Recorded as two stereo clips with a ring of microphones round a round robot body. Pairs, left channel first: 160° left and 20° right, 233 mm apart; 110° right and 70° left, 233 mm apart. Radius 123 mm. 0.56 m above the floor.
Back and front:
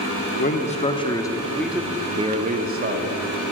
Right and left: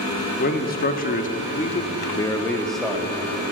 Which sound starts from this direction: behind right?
A man speaking, at 0.4 s.